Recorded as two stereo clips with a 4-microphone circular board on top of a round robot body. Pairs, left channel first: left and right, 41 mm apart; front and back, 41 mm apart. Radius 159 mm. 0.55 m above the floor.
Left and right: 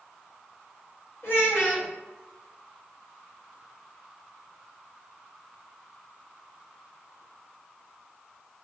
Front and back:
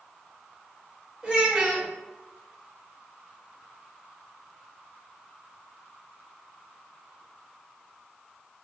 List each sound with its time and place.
1.2 s a child speaking: 110° left, 1.4 m